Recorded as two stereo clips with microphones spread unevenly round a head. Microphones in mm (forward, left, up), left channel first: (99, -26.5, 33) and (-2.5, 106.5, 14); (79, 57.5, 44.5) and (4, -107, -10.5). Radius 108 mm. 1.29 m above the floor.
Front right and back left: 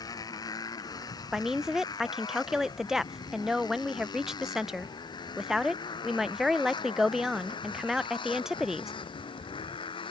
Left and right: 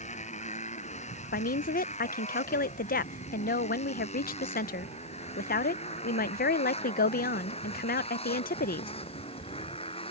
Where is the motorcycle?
15° left; by 10.1 s 5° left.